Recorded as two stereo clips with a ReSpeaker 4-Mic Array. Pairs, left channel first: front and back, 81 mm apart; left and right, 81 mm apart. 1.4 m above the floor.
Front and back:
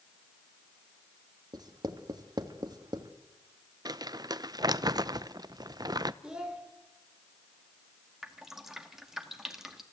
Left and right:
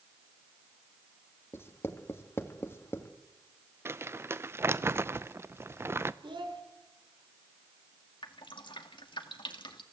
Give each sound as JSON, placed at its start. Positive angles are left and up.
{"t": 1.5, "sound": "writing", "azimuth_deg": 150, "distance_m": 1.5}
{"t": 3.9, "sound": "crumpling", "azimuth_deg": -145, "distance_m": 0.6}
{"t": 6.2, "sound": "a child speaking", "azimuth_deg": -100, "distance_m": 3.5}
{"t": 8.2, "sound": "dripping", "azimuth_deg": 95, "distance_m": 1.9}